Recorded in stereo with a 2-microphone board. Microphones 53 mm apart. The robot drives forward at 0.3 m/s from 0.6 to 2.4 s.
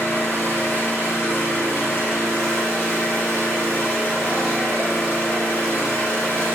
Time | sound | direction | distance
0.0 | an engine running | 45° left (ahead or behind) | 1.7 m